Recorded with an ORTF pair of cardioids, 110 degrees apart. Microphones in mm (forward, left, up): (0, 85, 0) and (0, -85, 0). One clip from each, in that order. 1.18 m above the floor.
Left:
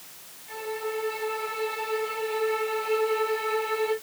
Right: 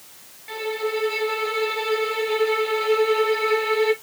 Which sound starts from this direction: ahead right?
A violin, at 0.5 s.